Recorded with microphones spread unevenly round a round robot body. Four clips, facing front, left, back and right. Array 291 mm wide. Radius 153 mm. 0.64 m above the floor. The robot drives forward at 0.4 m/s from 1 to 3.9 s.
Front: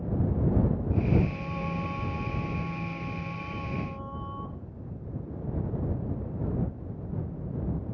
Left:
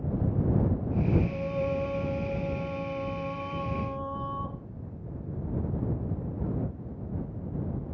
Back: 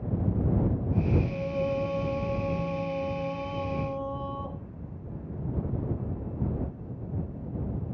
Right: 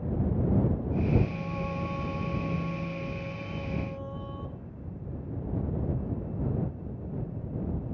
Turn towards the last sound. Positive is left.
turn(degrees=150)